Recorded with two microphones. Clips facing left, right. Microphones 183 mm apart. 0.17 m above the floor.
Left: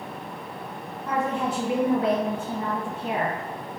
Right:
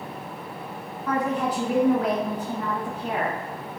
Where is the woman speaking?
25° left (ahead or behind), 1.7 m.